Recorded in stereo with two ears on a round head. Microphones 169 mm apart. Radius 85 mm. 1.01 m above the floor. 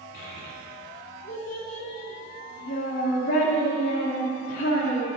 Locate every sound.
0.1 s a child speaking: 65° left (ahead or behind), 1.9 m